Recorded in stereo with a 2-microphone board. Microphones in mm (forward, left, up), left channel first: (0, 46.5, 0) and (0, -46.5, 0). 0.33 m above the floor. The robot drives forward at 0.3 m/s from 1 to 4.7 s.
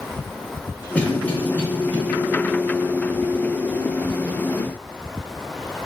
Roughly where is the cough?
Centre.